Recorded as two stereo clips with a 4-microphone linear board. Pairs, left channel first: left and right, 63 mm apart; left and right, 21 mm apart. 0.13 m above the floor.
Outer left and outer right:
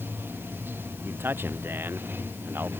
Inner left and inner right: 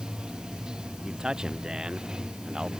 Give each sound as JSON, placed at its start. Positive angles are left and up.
{"t": 0.0, "sound": "running water", "side_deg": -30}
{"t": 1.0, "sound": "a man speaking", "side_deg": -30}